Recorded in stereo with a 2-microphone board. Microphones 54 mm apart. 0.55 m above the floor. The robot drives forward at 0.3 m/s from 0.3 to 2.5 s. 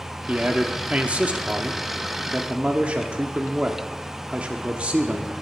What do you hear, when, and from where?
0.3 s a man speaking: 25° right (ahead or behind), 0.9 m